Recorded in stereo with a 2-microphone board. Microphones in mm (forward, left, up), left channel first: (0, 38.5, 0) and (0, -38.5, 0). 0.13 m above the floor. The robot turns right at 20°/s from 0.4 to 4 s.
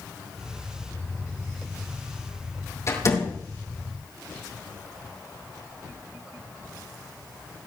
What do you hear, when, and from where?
2.9 s a door slam: 40° left (ahead or behind), 4.5 m; by 3.4 s 50° left (ahead or behind), 4.5 m